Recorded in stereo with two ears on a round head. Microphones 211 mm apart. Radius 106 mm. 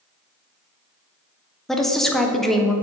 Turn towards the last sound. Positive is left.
turn(degrees=0)  # may be behind; listen again after turning